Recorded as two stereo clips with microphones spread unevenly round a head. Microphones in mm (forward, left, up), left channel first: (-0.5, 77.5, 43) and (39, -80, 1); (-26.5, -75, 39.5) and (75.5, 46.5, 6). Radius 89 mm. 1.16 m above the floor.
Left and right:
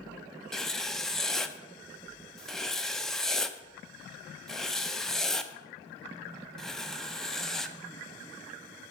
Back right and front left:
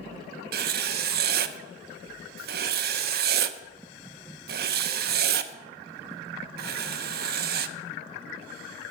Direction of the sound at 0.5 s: 20° left.